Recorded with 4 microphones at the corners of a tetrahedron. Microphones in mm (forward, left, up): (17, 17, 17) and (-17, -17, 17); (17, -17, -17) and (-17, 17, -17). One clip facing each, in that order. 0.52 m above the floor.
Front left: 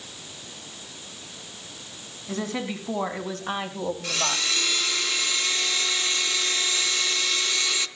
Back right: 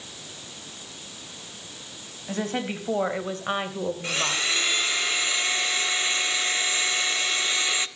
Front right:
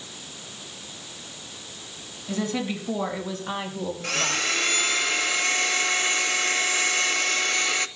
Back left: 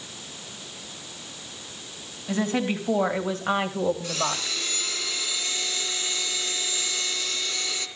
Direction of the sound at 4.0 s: 75° right.